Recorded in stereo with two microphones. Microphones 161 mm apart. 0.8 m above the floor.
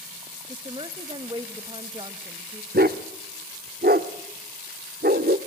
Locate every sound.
0.5 s a woman speaking: 30° right (ahead or behind), 1.2 m
2.7 s a dog barking: 70° right (ahead or behind), 1.0 m